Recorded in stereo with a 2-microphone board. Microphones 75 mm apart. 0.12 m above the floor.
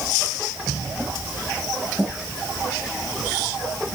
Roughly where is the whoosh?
No whoosh in this recording.